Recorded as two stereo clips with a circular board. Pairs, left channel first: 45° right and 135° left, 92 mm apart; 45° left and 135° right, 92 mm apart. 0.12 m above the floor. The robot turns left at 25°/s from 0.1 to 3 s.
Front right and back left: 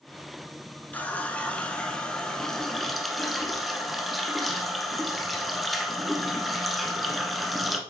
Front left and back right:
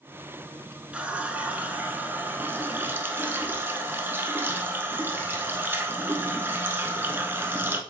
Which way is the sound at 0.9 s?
85° right.